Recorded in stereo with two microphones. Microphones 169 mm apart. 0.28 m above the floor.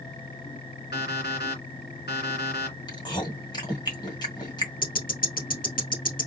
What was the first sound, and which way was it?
An alarm clock, 75° left (ahead or behind).